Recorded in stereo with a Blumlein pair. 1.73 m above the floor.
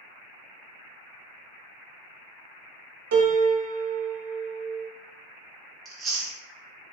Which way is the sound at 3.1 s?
55° right.